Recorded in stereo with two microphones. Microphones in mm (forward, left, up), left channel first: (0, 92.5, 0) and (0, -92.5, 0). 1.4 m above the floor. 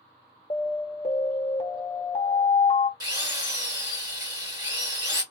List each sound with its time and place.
0.5 s an alarm: 35° left (ahead or behind), 0.9 m
3.0 s a drill: 20° right (ahead or behind), 1.8 m